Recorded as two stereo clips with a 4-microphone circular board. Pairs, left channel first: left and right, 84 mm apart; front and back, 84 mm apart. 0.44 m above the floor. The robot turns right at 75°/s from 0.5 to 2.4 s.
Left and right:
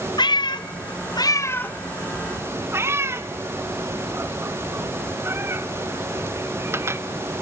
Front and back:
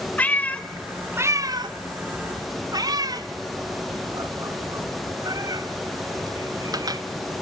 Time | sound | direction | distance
0.2 | a cat meowing | 70° left | 0.6 m